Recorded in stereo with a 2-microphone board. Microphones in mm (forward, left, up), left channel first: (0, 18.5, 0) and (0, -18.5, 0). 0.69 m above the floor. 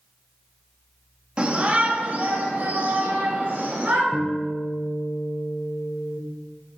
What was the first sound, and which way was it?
A shout, 30° right (ahead or behind).